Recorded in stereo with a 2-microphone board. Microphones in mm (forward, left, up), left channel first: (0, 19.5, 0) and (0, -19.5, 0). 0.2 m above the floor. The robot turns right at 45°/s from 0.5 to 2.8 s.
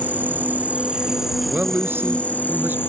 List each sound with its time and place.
0.0 s an insect: 45° right; by 2.9 s 55° left
1.5 s a man speaking: 130° right; by 2.8 s 70° right